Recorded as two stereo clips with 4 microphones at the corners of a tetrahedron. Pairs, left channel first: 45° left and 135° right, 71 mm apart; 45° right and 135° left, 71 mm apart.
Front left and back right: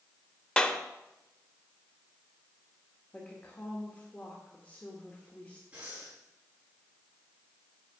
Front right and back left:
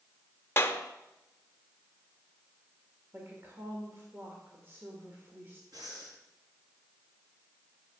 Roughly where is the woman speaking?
Left.